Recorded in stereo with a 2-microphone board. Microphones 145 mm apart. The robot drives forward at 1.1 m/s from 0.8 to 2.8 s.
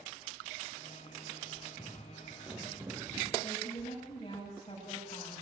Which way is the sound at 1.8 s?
20° left (ahead or behind).